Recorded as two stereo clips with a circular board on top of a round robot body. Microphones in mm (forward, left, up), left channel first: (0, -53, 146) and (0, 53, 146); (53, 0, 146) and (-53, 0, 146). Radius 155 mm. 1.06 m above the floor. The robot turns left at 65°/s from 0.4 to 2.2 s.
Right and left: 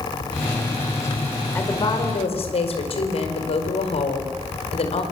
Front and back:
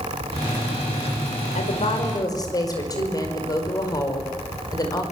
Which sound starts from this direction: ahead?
A woman speaking, at 1.6 s.